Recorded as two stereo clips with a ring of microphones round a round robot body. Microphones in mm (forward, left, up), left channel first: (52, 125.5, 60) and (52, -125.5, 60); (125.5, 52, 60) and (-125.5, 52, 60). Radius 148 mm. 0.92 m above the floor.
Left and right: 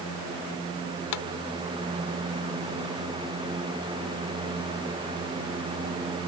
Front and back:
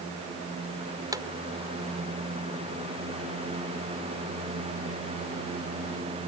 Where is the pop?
105° left.